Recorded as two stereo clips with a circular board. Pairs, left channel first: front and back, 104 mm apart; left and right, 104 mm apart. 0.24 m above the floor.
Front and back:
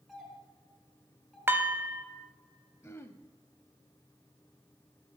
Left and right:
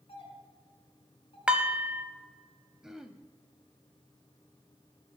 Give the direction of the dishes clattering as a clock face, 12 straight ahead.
5 o'clock.